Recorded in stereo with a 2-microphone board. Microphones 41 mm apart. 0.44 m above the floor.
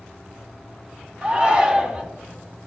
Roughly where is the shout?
Right.